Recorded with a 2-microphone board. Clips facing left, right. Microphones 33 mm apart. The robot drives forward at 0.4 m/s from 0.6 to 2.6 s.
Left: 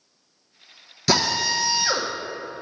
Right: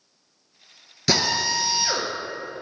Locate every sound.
1.1 s a drill: 5° right (ahead or behind), 1.1 m